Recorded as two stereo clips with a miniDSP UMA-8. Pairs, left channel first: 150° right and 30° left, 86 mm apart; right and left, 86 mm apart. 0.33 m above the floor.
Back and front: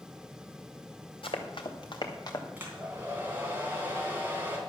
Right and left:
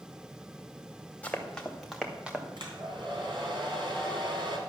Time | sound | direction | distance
1.2 | running footsteps | 165° right | 2.5 m
2.6 | a hair dryer | 95° left | 3 m